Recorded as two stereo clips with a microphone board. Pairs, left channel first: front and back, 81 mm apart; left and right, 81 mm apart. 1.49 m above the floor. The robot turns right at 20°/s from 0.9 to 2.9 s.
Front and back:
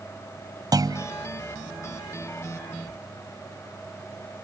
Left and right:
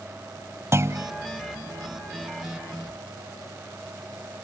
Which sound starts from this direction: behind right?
A clunk, at 0.7 s.